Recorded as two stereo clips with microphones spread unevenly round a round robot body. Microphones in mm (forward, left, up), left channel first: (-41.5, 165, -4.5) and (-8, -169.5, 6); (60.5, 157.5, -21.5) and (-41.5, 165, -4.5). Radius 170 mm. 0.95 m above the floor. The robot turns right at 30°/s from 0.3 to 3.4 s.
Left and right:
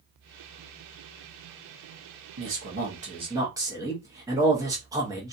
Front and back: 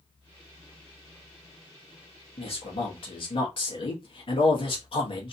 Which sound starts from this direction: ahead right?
A man speaking, at 2.4 s.